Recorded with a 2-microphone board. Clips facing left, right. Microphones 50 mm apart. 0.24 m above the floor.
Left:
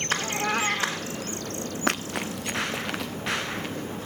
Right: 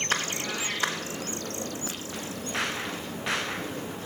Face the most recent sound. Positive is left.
turn(degrees=80)